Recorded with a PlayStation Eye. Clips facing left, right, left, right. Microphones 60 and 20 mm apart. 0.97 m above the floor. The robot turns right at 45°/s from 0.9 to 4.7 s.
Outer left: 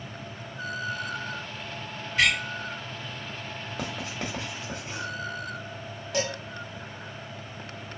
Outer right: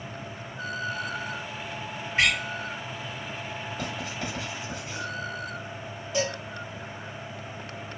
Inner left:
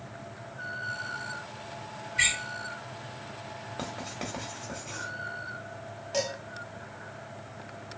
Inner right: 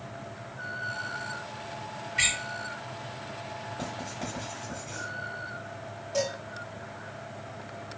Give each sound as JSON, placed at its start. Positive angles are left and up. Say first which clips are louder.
{"t": 2.2, "sound": "a door slam", "louder": "even, inner left 1 dB", "side_deg": -35, "distance_m": 2.0}
{"t": 3.8, "sound": "writing", "louder": "outer left 2 dB, inner left 1 dB", "side_deg": 75, "distance_m": 1.2}
{"t": 6.1, "sound": "dishes clattering", "louder": "outer right 1 dB, inner right 1 dB", "side_deg": 85, "distance_m": 1.8}